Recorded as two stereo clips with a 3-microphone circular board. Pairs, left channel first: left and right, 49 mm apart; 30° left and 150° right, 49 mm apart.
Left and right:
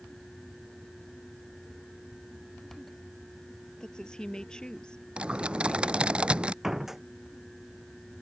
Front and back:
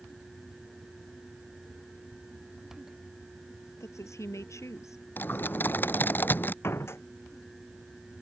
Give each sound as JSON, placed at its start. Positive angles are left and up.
{"t": 3.8, "sound": "a woman speaking", "azimuth_deg": 15}
{"t": 5.2, "sound": "typing on a keyboard", "azimuth_deg": -20}
{"t": 6.6, "sound": "a door slam", "azimuth_deg": -10}